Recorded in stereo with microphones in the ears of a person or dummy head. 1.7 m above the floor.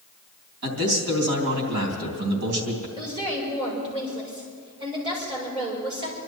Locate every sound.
0.6 s a man speaking: 80° right, 3.5 m
3.0 s a woman speaking: 25° right (ahead or behind), 6.5 m